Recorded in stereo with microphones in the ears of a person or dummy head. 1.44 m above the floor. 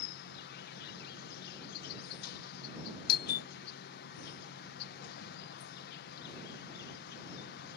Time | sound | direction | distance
0.0 | an insect | 60° left (ahead or behind) | ?
3.1 | a doorbell | 55° left (ahead or behind) | ?